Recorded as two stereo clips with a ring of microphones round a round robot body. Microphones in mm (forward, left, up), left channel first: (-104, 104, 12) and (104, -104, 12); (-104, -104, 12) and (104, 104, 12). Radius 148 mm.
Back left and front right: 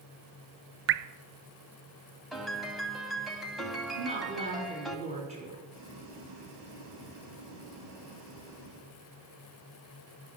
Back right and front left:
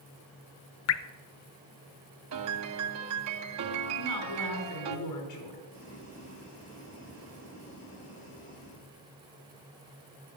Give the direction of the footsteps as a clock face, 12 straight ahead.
No footsteps in this recording.